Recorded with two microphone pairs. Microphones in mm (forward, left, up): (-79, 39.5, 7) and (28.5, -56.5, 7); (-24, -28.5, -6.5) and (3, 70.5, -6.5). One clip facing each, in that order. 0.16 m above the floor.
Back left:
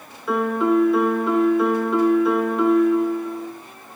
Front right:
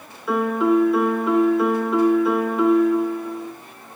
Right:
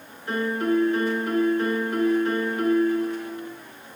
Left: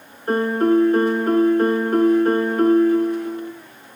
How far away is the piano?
About 1.1 m.